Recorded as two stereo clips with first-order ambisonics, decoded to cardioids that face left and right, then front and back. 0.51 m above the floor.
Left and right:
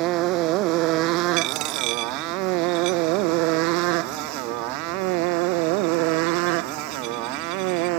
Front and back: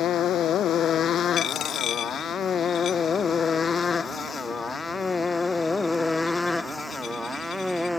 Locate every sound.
0.0 s a motorcycle: 55° right; by 8.0 s 90° right
1.4 s a dropped coin: 60° right